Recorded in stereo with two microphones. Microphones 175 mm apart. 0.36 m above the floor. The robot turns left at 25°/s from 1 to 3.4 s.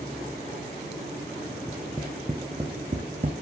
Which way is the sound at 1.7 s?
Centre (ahead or behind).